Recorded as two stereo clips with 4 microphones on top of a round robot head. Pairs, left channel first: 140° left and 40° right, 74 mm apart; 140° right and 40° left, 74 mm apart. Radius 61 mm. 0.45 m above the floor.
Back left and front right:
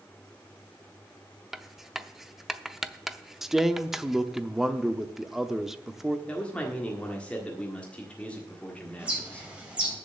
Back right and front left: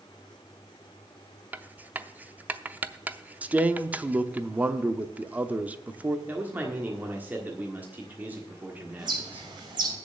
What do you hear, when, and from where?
1.5 s writing: 40° left, 0.7 m
3.4 s a man speaking: 35° left, 0.8 m
6.3 s a man speaking: 85° left, 1.6 m
9.0 s a bird: 35° left, 3.5 m